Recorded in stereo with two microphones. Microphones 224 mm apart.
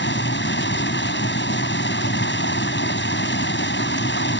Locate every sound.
0.0 s running water: 50° left (ahead or behind)